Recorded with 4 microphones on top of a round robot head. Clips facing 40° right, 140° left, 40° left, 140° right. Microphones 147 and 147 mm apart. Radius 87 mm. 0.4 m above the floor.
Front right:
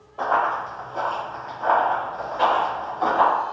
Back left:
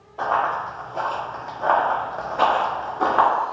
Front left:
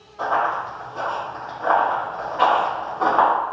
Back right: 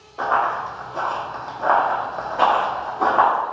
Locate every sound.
0.2 s running footsteps: 125° right, 1.2 m; by 3.3 s 150° left, 1.1 m